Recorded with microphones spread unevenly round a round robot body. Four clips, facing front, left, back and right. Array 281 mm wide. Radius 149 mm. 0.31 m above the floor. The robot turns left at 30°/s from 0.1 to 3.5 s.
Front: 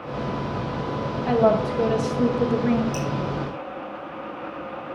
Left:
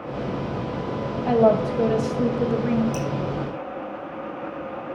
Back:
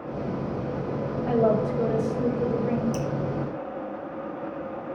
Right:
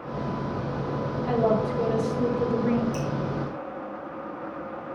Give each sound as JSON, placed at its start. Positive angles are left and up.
{"t": 1.3, "sound": "a woman speaking", "azimuth_deg": 75, "distance_m": 1.9}
{"t": 2.9, "sound": "dripping", "azimuth_deg": 120, "distance_m": 1.5}